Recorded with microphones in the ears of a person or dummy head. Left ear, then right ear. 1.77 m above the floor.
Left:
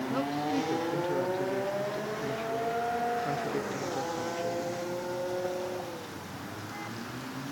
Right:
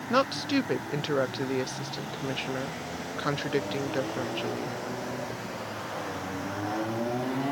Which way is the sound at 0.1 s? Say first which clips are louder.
Right 7 dB; 55° right (ahead or behind).